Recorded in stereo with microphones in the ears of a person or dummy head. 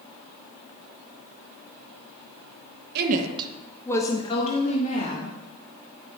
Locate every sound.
3.0 s a woman speaking: 55° right (ahead or behind), 0.8 m; by 5.3 s 50° left (ahead or behind), 2 m